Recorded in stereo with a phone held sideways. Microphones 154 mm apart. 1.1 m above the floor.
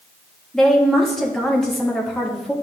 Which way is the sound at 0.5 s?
5° left (ahead or behind).